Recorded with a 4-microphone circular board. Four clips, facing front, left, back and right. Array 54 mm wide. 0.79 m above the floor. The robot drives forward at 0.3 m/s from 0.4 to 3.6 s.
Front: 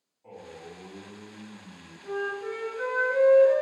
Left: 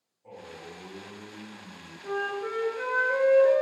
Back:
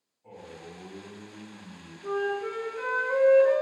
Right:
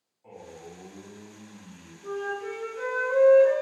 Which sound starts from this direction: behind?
A flute, at 2.0 s.